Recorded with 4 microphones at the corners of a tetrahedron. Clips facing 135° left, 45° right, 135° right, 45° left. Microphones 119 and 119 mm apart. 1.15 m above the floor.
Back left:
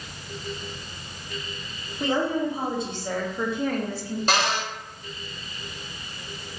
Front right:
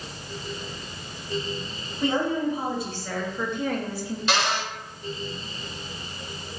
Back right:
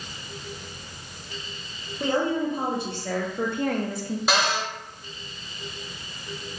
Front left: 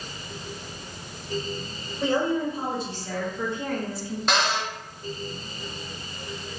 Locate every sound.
2.0 s a woman speaking: 170° right, 1.3 m; by 4.2 s 105° right, 0.5 m
4.3 s a cupboard door: 140° left, 0.6 m